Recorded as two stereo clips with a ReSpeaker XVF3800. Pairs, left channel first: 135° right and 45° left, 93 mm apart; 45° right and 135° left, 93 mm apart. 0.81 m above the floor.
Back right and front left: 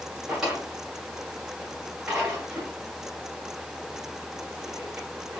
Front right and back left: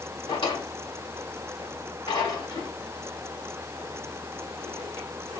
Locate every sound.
0.3 s a drawer: 40° right, 1.5 m